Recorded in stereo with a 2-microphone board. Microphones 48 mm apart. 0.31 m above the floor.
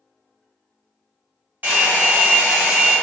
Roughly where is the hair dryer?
Right.